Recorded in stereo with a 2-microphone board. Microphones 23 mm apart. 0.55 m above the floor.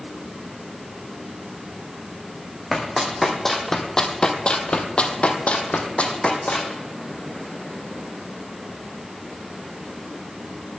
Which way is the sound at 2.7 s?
Centre (ahead or behind).